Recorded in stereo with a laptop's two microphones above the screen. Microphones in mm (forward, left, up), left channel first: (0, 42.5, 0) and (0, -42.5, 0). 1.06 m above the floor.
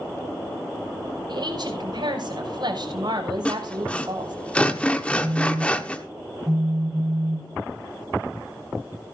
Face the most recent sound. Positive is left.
turn(degrees=-10)  # may be behind; listen again after turning